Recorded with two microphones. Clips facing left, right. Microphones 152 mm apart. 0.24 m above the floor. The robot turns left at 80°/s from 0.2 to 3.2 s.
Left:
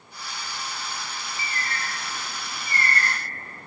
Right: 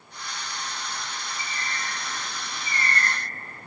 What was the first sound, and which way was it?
A bird, 95° left.